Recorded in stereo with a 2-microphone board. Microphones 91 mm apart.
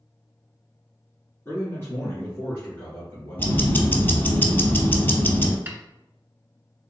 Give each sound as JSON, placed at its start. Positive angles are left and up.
{"t": 1.4, "sound": "a man speaking", "side_deg": 25, "distance_m": 1.9}
{"t": 3.4, "sound": "ticking", "side_deg": 25, "distance_m": 0.7}
{"t": 5.7, "sound": "a snare drum", "side_deg": -25, "distance_m": 0.7}